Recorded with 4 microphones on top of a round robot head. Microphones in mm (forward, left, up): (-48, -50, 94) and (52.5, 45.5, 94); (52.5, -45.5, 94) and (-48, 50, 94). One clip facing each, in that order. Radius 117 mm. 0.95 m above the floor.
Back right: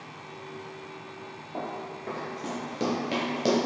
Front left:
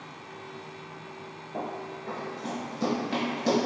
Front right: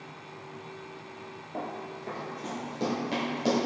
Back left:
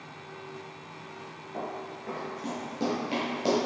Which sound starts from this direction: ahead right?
Running footsteps, at 1.5 s.